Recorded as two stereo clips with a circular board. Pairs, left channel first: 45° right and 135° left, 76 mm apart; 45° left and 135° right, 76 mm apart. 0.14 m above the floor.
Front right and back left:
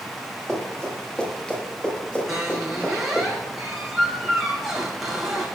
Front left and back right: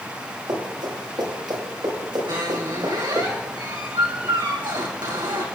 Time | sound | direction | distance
0.5 | running footsteps | 125° right | 8.5 m
2.3 | a squeak | 135° right | 3.5 m